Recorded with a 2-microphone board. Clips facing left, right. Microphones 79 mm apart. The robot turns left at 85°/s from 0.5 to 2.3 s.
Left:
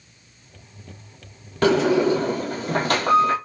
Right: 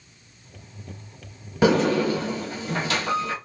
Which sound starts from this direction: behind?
A sliding door, at 1.6 s.